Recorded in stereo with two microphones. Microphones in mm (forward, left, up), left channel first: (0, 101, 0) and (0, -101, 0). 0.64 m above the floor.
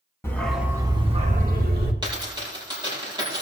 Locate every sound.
0.2 s a dog barking: 10° left (ahead or behind), 1.9 m; by 1.9 s 55° right (ahead or behind), 2.5 m
2.0 s a dropped coin: 20° right (ahead or behind), 7 m